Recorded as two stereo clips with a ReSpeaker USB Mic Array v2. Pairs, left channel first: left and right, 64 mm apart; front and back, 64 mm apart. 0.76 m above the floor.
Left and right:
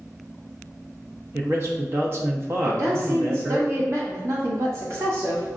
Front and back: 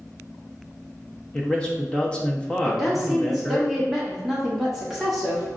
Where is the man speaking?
70° right, 0.8 m.